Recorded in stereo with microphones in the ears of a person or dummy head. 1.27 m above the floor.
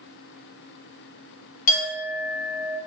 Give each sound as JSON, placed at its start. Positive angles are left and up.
{"t": 1.7, "sound": "a clink", "side_deg": 50, "distance_m": 1.0}